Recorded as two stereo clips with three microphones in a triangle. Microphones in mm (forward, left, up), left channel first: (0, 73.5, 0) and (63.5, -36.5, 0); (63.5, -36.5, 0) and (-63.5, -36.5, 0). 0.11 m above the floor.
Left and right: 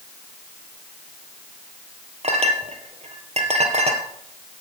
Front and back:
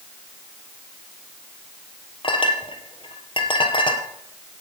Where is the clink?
40° right, 2 m.